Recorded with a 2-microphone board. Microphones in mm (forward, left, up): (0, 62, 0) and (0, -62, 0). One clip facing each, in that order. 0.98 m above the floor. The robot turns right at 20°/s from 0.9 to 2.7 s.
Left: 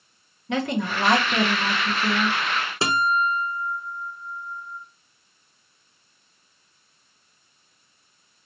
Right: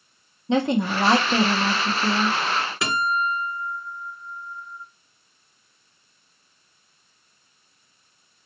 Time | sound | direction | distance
0.5 | a woman speaking | 25° right (ahead or behind) | 0.8 m
2.8 | a guitar | 30° left (ahead or behind) | 0.8 m